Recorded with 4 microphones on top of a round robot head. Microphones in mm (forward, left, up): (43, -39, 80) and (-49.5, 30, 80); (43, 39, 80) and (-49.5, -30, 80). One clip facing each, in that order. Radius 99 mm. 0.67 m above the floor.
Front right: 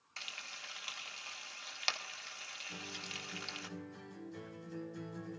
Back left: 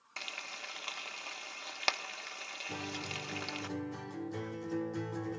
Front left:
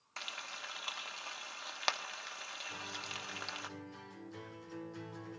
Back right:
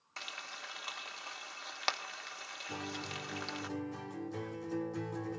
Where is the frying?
125° left, 1.6 m.